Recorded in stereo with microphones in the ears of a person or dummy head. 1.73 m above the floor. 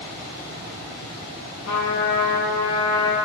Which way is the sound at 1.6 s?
80° left.